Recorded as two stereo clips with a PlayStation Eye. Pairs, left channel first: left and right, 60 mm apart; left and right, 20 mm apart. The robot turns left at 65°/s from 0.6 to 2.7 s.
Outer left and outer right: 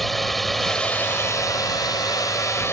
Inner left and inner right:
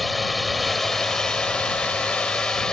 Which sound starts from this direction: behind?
A drone, at 0.0 s.